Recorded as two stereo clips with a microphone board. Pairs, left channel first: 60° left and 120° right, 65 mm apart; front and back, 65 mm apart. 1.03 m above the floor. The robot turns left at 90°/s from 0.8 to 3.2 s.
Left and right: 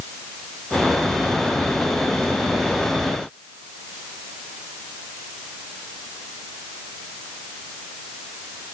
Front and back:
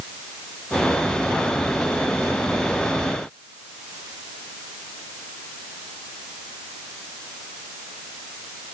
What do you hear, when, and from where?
Only background noise.